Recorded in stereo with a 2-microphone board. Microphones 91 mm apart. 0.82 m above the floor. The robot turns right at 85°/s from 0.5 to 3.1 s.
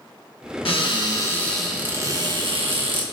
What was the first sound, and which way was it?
A cupboard door, 100° left.